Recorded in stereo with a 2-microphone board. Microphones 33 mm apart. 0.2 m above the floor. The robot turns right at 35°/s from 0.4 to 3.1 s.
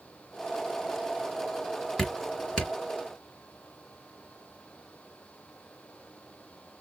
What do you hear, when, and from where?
2.0 s dripping: 15° left (ahead or behind), 3 m; by 2.7 s 35° left (ahead or behind), 3 m